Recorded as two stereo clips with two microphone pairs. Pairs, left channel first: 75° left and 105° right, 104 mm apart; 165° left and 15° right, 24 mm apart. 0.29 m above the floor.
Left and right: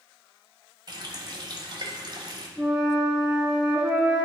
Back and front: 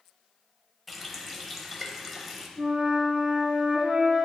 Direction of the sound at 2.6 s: 25° right.